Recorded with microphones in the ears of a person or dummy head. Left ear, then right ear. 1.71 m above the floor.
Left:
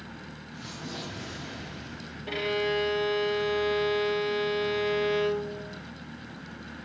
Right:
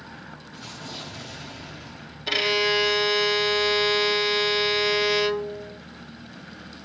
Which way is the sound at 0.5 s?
25° right (ahead or behind).